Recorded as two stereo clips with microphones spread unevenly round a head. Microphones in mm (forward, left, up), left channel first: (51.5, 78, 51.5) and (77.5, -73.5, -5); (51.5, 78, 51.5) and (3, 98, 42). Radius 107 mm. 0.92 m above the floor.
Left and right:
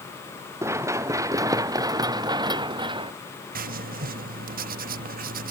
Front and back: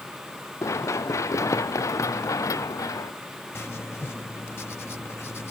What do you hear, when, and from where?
0.6 s running footsteps: 5° right; by 3.1 s 20° right
3.5 s writing: 80° right